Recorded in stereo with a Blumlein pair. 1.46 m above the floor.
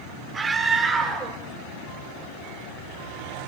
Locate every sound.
0.3 s a scream: 15° right, 5 m; by 3.5 s 20° right, 7 m